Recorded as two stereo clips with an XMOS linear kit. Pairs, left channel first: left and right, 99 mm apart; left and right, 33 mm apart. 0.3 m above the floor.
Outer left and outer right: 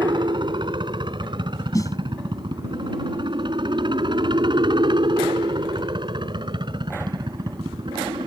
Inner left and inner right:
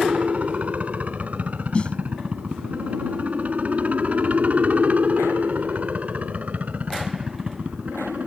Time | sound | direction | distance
0.0 | a helicopter | 50° right (ahead or behind) | ?
1.7 | a snare drum | 35° left (ahead or behind) | ?